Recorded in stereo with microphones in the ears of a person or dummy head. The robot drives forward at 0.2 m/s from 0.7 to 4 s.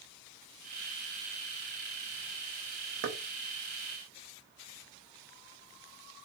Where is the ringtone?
I don't hear a ringtone.